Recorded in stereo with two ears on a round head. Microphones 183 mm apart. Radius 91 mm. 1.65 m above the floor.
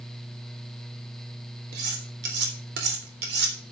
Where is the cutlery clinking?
55° right (ahead or behind), 3.5 m.